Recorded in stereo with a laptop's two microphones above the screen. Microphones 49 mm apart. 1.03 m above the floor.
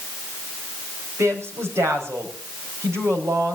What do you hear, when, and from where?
1.2 s a woman speaking: 85° right, 5.5 m